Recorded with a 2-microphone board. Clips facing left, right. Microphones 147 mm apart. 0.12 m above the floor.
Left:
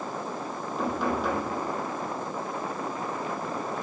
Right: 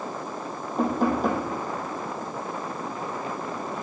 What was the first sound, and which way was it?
Knocking, 45° right (ahead or behind).